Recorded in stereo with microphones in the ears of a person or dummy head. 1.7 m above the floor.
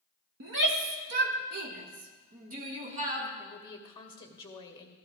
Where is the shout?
60° right (ahead or behind), 1.0 m; by 3.3 s 40° right (ahead or behind), 2 m.